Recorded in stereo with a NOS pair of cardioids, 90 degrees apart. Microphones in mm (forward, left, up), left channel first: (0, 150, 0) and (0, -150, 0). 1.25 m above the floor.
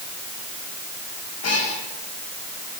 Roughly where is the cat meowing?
Ahead left.